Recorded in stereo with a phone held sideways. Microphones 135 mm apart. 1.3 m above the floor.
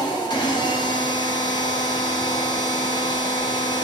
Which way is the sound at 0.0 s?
35° left (ahead or behind).